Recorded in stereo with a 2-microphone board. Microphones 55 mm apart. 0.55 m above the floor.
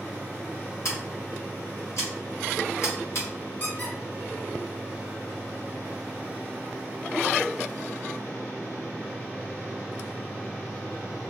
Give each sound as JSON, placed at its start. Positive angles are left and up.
{"t": 0.8, "sound": "scissors", "side_deg": 65, "distance_m": 1.6}
{"t": 3.6, "sound": "a squeak", "side_deg": 40, "distance_m": 1.9}